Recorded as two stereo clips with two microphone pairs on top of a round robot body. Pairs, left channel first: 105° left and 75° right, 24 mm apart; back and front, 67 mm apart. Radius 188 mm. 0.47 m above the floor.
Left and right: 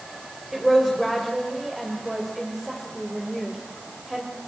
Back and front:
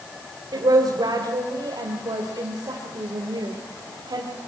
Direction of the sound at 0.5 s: 10° left.